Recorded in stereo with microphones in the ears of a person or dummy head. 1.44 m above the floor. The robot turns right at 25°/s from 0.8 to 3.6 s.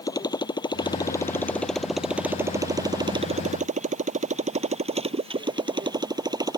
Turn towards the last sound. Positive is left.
turn(degrees=-20)  # may be behind; listen again after turning